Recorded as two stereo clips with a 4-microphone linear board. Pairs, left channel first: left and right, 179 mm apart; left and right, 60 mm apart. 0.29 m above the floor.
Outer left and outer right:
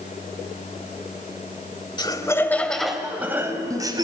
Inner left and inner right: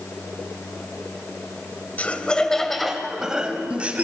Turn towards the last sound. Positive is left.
turn(degrees=-25)  # may be behind; listen again after turning